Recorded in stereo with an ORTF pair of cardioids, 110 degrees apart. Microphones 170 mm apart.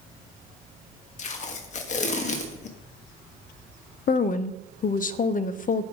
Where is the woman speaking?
55° left, 0.6 m.